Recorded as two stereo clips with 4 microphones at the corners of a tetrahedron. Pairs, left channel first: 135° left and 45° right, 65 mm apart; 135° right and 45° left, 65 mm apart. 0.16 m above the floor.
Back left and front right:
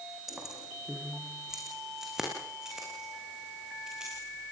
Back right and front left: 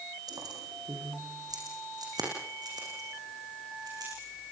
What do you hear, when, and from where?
0.3 s keys jangling: 40° left, 6.5 m; by 4.5 s 35° left, 12.5 m